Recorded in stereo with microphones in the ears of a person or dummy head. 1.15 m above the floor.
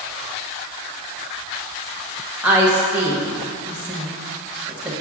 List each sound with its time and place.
2.4 s a woman speaking: 10° right (ahead or behind), 1.1 m